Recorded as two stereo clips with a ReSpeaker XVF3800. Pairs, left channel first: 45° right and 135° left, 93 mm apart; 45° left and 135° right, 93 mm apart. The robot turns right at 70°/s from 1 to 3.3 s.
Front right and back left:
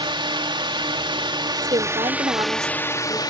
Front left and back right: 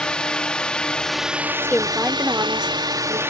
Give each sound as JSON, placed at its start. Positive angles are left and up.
{"t": 0.0, "sound": "a drone", "azimuth_deg": 125}
{"t": 1.6, "sound": "a woman speaking", "azimuth_deg": 115}